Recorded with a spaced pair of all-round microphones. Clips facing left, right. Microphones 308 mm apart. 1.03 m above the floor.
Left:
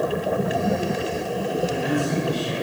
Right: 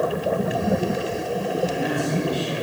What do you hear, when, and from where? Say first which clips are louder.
1.6 s a man speaking: left 2 dB; 50° left (ahead or behind), 6.5 m